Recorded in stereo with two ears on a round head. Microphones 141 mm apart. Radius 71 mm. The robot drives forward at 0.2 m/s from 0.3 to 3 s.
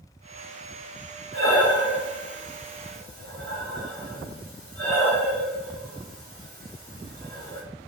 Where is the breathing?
70° right (ahead or behind), 1.0 m; by 7.6 s 65° right (ahead or behind), 1.1 m.